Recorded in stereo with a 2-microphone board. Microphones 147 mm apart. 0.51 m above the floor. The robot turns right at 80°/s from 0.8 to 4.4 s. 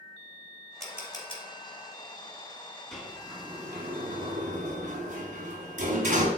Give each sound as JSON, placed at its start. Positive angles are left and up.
{"t": 0.8, "sound": "a camera shutter", "side_deg": 0, "distance_m": 3.0}
{"t": 2.9, "sound": "a sliding door", "side_deg": 5, "distance_m": 2.5}